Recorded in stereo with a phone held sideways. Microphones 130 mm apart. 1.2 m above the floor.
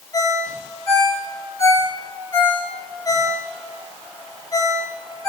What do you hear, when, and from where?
0.1 s a ringtone: 30° left (ahead or behind), 3 m